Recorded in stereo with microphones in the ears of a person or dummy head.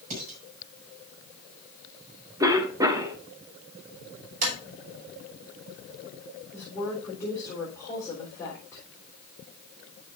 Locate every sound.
0.1 s dishes clattering: 50° right (ahead or behind), 5.5 m
2.4 s a cough: 15° right (ahead or behind), 1.2 m
4.4 s tapping: 45° right (ahead or behind), 4.5 m
6.5 s a woman speaking: 20° left (ahead or behind), 4 m